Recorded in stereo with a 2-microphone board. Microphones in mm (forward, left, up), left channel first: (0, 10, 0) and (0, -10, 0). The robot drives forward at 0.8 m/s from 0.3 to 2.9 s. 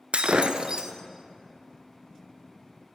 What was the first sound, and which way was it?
Breaking glass, 70° right (ahead or behind).